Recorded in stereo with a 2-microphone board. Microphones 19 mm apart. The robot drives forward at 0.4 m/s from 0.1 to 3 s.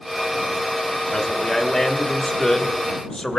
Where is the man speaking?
35° left (ahead or behind), 2.5 m; by 3.4 s 45° left (ahead or behind), 2 m.